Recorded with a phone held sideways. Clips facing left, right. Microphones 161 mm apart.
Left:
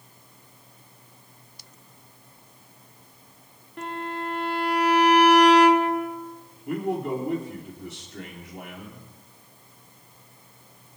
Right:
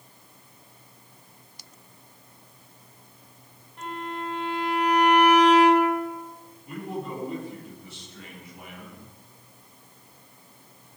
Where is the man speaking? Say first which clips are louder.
Left 7 dB; 70° left (ahead or behind), 3 m.